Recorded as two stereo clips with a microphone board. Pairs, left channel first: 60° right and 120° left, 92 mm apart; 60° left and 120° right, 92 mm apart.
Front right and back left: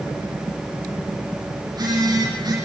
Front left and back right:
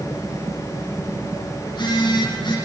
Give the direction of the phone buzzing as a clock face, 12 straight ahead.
9 o'clock.